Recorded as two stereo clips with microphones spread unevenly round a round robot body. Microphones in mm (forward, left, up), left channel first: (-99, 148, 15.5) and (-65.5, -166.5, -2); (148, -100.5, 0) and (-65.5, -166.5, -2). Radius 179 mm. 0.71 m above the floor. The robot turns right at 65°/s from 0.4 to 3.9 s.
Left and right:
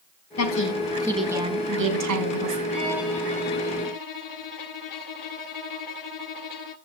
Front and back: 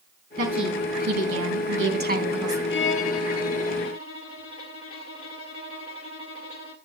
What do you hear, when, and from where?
0.4 s a woman speaking: 135° left, 5 m; by 2.6 s 85° right, 5 m
2.7 s a violin: 20° right, 1.5 m; by 6.8 s 60° left, 1.5 m